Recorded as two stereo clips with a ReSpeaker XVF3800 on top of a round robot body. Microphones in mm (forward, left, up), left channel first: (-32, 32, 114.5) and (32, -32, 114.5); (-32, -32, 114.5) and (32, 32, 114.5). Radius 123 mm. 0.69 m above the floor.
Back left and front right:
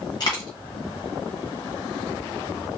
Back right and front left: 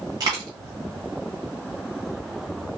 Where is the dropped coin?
90° left, 0.6 m.